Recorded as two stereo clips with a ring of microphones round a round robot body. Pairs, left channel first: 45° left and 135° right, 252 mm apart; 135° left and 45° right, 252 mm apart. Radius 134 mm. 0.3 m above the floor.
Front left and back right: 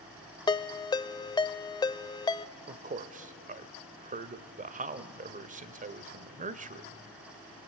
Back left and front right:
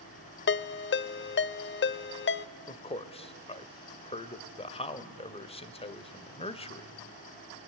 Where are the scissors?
I don't hear scissors.